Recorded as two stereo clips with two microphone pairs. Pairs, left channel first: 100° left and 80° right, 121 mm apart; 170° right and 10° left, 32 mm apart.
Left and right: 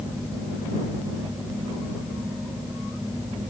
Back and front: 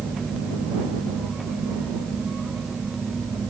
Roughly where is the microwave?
No microwave in this recording.